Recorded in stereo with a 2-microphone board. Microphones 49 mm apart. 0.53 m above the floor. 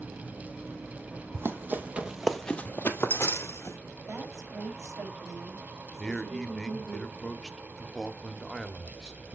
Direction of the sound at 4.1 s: 70° right (ahead or behind).